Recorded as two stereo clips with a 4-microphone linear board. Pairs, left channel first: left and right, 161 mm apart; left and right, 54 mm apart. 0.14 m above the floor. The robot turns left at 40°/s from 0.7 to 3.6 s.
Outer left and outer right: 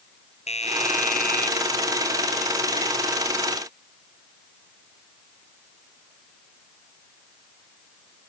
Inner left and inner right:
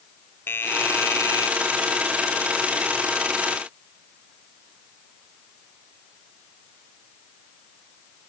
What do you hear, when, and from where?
0.5 s a doorbell: 140° left; by 1.5 s 105° left